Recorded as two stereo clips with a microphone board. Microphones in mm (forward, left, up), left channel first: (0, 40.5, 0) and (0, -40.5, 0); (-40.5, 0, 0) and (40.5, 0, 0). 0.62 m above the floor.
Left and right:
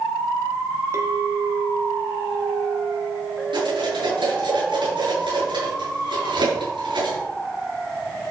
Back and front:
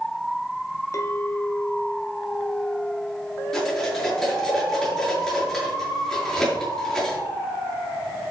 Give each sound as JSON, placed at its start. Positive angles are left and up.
{"t": 0.9, "sound": "a clink", "azimuth_deg": -140, "distance_m": 1.8}
{"t": 3.5, "sound": "cutlery clinking", "azimuth_deg": -100, "distance_m": 6.5}